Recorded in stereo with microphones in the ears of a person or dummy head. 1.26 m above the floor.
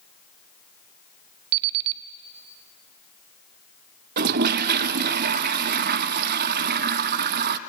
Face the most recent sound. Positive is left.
turn(degrees=-45)  # may be behind; listen again after turning